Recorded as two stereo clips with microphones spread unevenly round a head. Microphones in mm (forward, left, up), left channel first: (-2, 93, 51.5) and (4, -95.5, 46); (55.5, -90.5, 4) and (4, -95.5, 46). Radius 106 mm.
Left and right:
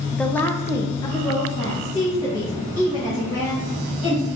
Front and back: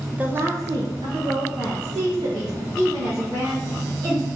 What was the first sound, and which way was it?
A woman speaking, 5° left.